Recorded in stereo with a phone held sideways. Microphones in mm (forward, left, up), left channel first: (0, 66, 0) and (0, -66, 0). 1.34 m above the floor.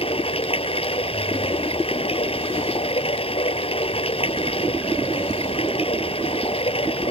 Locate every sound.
0.0 s running water: 45° left (ahead or behind)